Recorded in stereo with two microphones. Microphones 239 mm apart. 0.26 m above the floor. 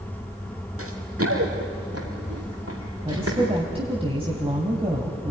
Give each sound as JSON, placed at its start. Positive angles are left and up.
{"t": 0.8, "sound": "running footsteps", "side_deg": -70, "distance_m": 3.0}
{"t": 3.0, "sound": "a woman speaking", "side_deg": -25, "distance_m": 2.0}